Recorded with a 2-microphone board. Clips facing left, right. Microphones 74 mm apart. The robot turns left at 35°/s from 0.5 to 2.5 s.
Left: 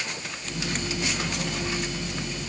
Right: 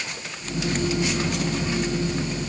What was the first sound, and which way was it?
Only background noise.